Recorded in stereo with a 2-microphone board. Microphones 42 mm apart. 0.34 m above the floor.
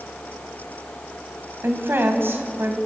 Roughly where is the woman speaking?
Right.